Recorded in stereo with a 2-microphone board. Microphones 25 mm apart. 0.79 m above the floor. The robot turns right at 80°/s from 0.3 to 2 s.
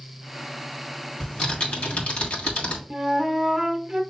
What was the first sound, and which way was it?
Typing on a keyboard, 35° left.